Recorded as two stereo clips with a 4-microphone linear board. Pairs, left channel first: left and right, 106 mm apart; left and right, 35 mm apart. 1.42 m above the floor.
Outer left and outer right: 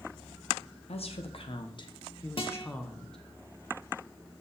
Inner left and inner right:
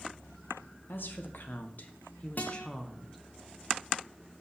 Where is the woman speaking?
70° left (ahead or behind), 1.1 m; by 3.2 s 5° left (ahead or behind), 1.1 m.